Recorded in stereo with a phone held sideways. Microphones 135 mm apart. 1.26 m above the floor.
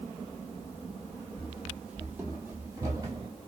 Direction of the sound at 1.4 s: 5° right (ahead or behind).